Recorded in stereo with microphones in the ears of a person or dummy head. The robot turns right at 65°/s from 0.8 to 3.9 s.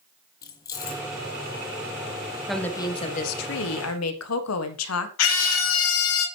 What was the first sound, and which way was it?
Keys jangling, 20° left (ahead or behind).